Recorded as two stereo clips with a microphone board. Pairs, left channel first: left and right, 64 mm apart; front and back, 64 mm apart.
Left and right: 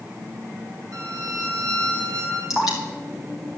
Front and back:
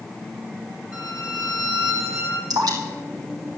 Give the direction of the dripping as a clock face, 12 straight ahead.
6 o'clock.